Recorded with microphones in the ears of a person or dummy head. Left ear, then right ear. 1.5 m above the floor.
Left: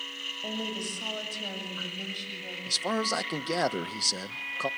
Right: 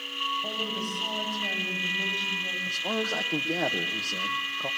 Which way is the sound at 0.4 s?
75° left (ahead or behind).